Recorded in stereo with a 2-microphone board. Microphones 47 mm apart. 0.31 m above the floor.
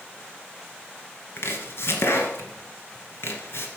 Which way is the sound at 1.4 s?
60° left (ahead or behind).